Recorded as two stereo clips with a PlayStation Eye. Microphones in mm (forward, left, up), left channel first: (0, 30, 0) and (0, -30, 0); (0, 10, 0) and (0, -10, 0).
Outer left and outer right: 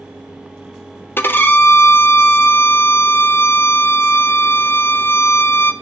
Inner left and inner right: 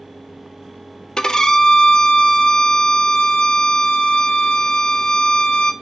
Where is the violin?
35° left (ahead or behind), 0.6 m.